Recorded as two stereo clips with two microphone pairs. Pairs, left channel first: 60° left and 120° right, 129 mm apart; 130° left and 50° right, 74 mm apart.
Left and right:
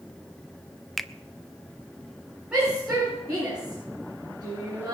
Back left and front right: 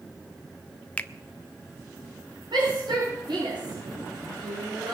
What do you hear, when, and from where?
1.0 s a finger snap: 150° left, 0.7 m
2.5 s a shout: 40° right, 7 m